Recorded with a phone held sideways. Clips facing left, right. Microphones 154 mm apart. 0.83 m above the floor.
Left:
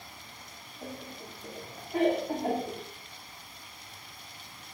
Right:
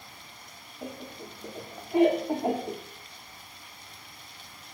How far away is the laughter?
About 1.9 m.